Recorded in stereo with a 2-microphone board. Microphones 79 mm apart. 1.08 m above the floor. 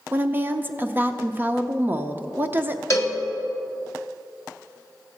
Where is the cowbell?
40° left (ahead or behind), 1.4 m.